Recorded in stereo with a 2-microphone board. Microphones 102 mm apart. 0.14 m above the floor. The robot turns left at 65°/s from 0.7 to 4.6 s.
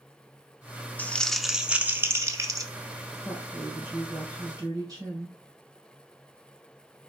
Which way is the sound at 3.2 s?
50° left.